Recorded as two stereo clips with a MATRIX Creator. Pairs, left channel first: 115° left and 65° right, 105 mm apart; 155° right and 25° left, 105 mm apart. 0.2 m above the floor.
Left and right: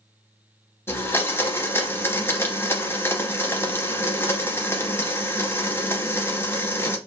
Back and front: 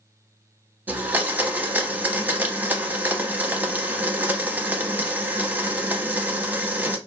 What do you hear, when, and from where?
0.9 s a blender: 75° left, 0.6 m